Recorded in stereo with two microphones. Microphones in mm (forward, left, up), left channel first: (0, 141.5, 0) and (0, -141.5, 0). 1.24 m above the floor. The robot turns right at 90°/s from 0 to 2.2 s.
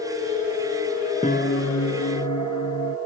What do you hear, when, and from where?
1.2 s a piano: 20° left; by 3.0 s 105° left